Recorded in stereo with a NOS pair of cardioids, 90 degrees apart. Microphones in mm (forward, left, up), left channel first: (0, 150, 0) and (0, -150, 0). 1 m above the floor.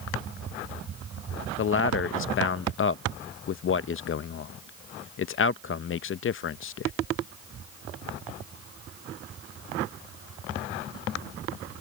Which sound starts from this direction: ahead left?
A man speaking, at 1.6 s.